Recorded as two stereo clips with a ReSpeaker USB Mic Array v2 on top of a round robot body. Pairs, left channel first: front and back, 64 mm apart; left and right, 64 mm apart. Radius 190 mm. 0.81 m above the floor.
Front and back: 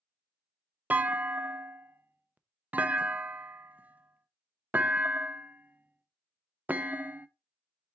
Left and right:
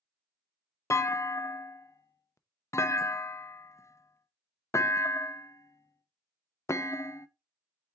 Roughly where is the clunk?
Behind left.